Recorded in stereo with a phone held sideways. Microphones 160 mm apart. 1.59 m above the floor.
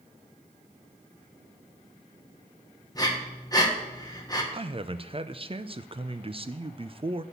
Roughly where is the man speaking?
Right.